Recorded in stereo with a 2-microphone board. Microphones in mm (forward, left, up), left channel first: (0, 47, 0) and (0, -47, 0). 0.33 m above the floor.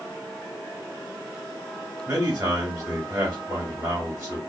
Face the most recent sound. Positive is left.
turn(degrees=-25)  # may be behind; listen again after turning